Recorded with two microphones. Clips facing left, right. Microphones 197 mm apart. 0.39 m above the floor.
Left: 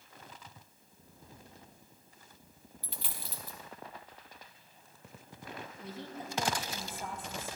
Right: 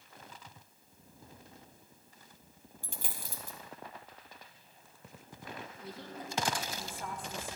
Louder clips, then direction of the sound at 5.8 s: Left 3 dB; 25° left (ahead or behind).